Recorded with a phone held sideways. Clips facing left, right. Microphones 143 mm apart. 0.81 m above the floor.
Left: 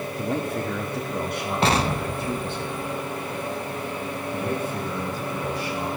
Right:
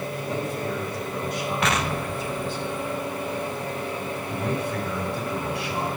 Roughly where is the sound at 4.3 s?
Right.